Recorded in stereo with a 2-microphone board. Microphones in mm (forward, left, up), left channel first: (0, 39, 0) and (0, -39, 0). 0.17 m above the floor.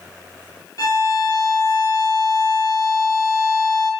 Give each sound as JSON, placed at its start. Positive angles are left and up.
{"t": 0.8, "sound": "a violin", "side_deg": 45, "distance_m": 3.0}